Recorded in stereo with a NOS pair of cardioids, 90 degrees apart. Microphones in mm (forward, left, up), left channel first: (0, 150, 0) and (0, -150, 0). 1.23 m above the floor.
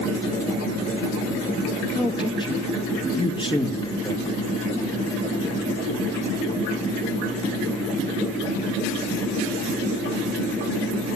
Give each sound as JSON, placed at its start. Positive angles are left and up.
{"t": 1.9, "sound": "a man speaking", "azimuth_deg": 15, "distance_m": 1.7}